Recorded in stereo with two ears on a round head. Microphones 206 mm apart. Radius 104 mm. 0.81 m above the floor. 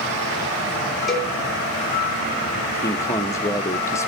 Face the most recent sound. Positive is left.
turn(degrees=10)  # may be behind; listen again after turning